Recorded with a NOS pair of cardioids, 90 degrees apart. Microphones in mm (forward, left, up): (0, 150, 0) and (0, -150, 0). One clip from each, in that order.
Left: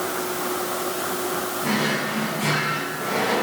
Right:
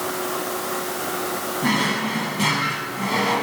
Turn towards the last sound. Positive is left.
turn(degrees=-70)